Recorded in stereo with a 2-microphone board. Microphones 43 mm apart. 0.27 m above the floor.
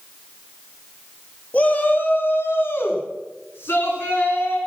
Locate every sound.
1.5 s a shout: 35° left (ahead or behind), 2 m; by 4.6 s 65° left (ahead or behind), 5 m